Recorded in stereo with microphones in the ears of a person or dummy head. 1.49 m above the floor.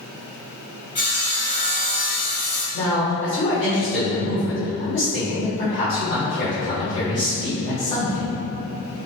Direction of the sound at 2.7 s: 65° left (ahead or behind).